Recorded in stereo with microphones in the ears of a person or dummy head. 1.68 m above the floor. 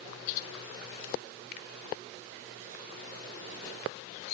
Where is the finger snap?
65° left (ahead or behind).